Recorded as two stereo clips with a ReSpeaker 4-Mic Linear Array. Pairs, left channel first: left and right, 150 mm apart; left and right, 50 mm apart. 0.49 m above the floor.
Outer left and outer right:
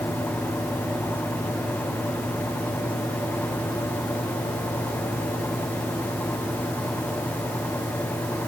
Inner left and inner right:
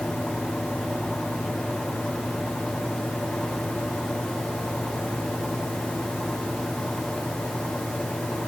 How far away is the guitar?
I don't hear a guitar.